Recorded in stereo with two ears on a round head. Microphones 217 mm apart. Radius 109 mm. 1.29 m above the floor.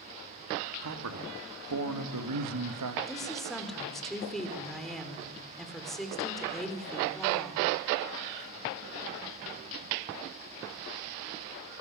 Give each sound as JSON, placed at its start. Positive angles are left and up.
{"t": 0.8, "sound": "a man speaking", "side_deg": -65, "distance_m": 3.5}
{"t": 3.1, "sound": "a woman speaking", "side_deg": 0, "distance_m": 5.0}